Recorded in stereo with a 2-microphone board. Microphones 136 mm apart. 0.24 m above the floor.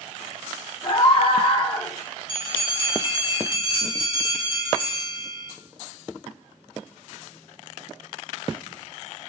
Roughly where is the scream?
Left.